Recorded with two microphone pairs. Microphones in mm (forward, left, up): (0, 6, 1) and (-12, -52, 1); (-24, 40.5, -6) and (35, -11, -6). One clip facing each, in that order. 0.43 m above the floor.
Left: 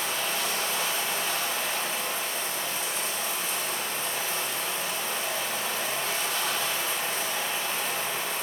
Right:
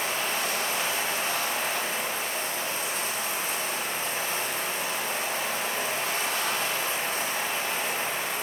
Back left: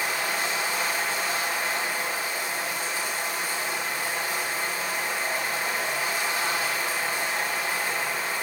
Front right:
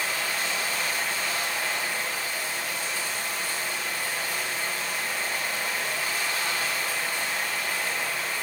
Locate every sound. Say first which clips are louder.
0.0 s running water: right 1 dB, back left 2 dB; 145° right, 8.5 m